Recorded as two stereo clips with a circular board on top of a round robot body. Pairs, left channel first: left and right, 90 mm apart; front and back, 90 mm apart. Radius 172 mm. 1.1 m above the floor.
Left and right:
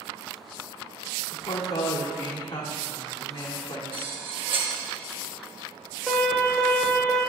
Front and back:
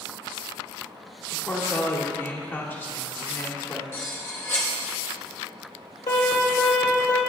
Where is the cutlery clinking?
65° right, 1.2 m.